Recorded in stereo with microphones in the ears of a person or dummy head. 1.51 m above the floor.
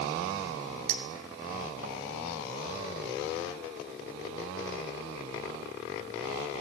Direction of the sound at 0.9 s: 65° right (ahead or behind).